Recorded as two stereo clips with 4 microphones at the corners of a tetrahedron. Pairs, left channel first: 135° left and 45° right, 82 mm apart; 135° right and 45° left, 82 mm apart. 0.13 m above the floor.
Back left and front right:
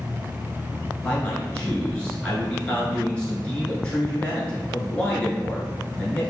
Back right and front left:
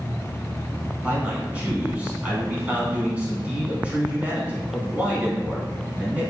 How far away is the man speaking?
About 1.1 m.